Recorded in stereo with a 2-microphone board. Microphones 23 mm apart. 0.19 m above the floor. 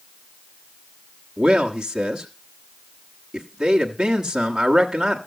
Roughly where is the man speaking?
Right.